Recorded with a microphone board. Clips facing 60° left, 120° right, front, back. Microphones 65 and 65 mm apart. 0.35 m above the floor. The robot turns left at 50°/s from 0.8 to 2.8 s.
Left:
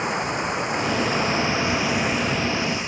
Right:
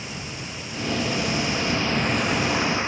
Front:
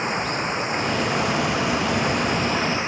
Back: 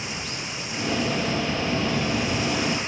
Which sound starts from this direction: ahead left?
Running water, at 0.0 s.